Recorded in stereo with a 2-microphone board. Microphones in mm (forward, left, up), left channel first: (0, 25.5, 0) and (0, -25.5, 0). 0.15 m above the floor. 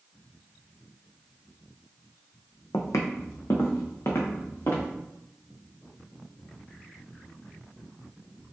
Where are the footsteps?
85° left, 0.5 m; by 4.9 s 50° left (ahead or behind), 1.4 m.